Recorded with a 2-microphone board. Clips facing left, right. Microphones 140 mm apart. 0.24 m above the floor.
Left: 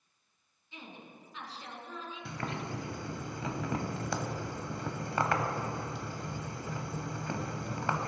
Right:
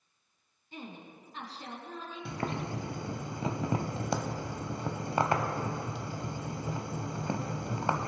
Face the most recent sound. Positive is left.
turn(degrees=-25)  # may be behind; listen again after turning